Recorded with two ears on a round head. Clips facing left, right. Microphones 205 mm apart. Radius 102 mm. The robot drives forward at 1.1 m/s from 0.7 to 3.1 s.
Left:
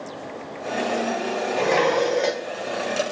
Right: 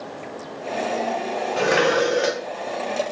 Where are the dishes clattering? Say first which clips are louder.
Right 1 dB; 10° right (ahead or behind).